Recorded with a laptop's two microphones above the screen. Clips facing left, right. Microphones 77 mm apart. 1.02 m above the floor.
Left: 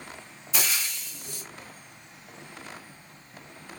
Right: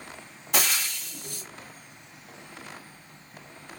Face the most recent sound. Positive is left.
turn(degrees=-60)  # may be behind; listen again after turning